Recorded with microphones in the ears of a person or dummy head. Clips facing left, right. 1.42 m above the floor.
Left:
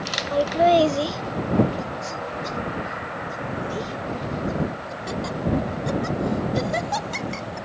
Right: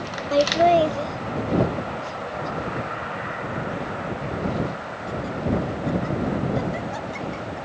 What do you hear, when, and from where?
0.3 s laughter: 35° right (ahead or behind); by 7.6 s 80° left